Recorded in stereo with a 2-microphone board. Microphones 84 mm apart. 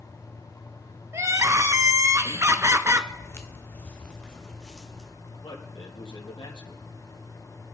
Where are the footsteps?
35° left (ahead or behind), 1.5 m; by 5.1 s centre (ahead or behind), 3 m.